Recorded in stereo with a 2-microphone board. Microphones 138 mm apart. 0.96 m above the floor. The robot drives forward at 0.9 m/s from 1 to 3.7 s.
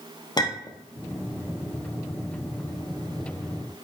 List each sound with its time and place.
0.4 s a clink: 30° left (ahead or behind), 0.8 m